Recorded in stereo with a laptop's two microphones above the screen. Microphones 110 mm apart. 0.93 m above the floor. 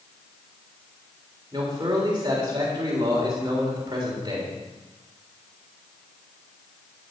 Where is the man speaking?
35° right (ahead or behind), 3.5 m.